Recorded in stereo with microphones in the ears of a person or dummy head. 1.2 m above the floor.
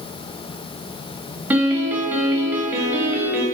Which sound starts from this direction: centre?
A piano, at 1.5 s.